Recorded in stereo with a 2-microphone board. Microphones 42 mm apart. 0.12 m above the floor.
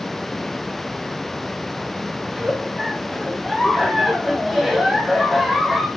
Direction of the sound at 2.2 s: 5° right (ahead or behind).